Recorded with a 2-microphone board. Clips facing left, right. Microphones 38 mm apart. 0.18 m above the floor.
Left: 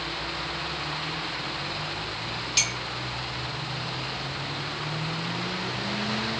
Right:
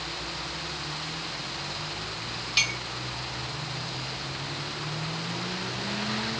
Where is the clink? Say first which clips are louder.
Right 3 dB; 15° right (ahead or behind), 0.9 m.